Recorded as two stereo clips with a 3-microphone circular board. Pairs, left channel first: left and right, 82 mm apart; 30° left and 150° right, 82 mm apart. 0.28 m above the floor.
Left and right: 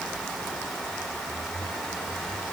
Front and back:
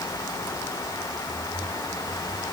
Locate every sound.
Only background noise.